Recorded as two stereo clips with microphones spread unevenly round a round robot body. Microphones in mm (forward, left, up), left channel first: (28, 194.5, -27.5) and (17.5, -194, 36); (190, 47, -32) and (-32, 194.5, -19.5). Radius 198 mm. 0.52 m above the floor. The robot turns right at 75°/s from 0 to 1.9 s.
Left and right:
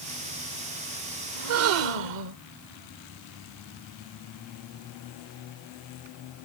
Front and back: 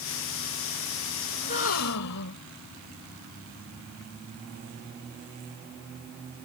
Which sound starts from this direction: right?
A gasp, at 1.4 s.